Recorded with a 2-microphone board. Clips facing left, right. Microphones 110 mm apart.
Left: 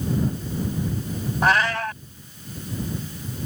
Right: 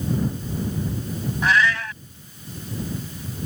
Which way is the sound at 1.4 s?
50° left (ahead or behind).